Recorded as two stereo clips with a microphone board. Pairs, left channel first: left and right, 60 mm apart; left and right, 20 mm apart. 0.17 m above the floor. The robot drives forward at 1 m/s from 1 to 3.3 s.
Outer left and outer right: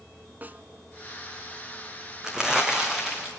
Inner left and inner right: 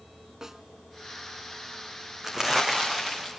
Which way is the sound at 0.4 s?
30° right (ahead or behind).